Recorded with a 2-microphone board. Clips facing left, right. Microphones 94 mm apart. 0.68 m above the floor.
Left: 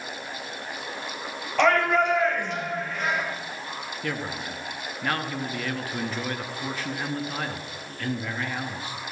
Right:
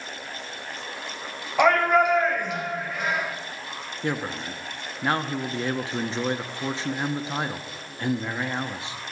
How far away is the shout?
About 2.5 m.